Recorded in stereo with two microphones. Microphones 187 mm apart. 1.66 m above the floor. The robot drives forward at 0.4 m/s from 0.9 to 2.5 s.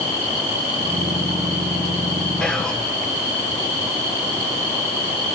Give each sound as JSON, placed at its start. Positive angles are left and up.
{"t": 2.4, "sound": "whispering", "side_deg": 5, "distance_m": 1.4}